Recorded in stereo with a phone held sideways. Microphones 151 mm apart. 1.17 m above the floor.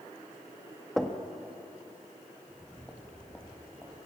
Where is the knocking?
Centre (ahead or behind), 1.1 m.